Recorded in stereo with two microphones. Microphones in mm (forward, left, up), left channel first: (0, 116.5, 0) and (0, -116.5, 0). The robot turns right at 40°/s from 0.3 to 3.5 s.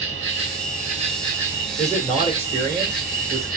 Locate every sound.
0.0 s an insect: 55° right, 3.5 m; by 3.6 s 70° left, 3.5 m
1.8 s a man speaking: 170° left, 1.3 m; by 3.5 s 120° right, 1.3 m